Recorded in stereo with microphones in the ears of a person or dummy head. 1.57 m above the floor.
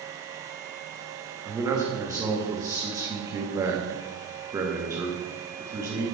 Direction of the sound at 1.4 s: 15° right (ahead or behind).